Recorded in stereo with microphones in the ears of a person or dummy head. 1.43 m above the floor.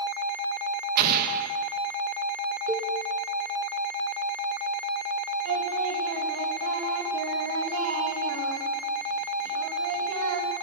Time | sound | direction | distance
1.0 | an explosion | 55° right (ahead or behind) | 1.4 m
2.7 | a cowbell | 15° right (ahead or behind) | 1.5 m
5.5 | singing | 85° right | 2.5 m